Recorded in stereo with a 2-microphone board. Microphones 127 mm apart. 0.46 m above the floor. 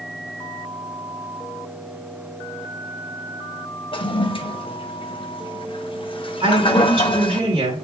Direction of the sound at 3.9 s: 45° left (ahead or behind).